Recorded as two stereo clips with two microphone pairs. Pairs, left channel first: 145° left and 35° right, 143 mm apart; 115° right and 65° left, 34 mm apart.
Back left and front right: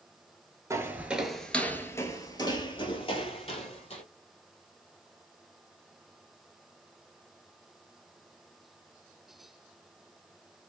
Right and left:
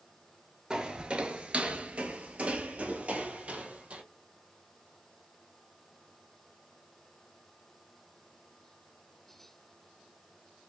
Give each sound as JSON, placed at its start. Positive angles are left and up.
{"t": 0.7, "sound": "footsteps", "azimuth_deg": 15, "distance_m": 0.9}